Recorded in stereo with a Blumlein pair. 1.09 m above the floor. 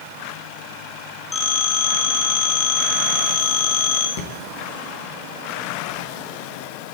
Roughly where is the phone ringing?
Ahead.